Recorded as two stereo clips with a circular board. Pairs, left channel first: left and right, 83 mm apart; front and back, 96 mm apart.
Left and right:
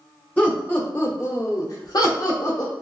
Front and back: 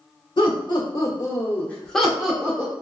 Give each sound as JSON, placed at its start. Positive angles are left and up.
{"t": 0.4, "sound": "laughter", "azimuth_deg": 20, "distance_m": 1.3}